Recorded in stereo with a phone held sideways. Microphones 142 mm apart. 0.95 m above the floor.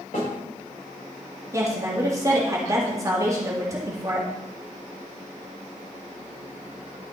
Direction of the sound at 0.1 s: 80° left.